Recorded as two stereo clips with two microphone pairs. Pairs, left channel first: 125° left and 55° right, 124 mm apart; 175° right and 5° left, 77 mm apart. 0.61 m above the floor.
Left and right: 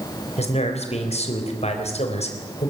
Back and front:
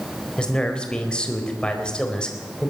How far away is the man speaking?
About 3.5 m.